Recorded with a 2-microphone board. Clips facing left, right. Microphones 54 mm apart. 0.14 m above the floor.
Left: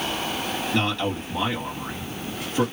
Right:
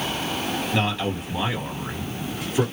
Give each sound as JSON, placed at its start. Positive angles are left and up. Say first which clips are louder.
{"t": 0.7, "sound": "a man speaking", "louder": "left 1 dB", "side_deg": -15, "distance_m": 1.9}